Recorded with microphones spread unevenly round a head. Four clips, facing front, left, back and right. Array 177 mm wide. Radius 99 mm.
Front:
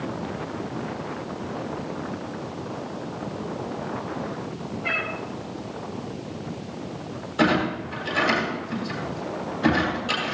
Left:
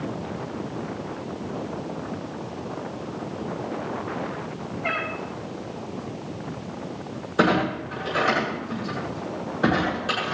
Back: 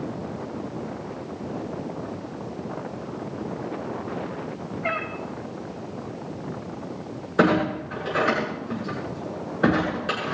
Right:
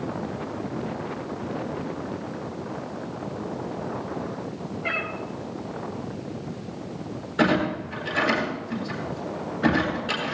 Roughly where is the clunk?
Behind.